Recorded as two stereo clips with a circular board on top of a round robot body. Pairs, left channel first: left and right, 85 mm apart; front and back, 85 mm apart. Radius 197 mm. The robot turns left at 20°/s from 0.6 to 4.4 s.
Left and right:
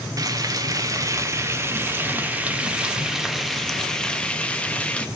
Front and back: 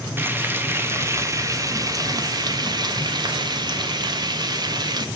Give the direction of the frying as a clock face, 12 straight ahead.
4 o'clock.